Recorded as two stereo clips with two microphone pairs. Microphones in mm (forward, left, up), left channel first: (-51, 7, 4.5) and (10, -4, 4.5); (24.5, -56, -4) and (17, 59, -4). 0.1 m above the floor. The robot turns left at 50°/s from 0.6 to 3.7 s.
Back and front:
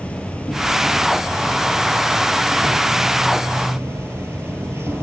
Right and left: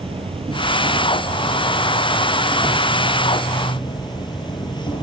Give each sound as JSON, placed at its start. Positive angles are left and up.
{"t": 0.0, "sound": "an insect", "azimuth_deg": 105, "distance_m": 1.5}